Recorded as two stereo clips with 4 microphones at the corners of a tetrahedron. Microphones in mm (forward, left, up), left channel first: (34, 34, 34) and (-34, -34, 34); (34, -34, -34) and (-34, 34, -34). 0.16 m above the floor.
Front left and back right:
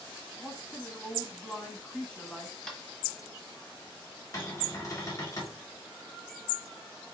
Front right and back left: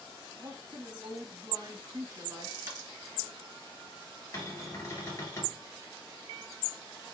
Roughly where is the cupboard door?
Ahead.